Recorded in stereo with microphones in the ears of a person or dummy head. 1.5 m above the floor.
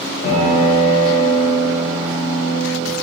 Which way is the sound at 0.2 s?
45° left (ahead or behind).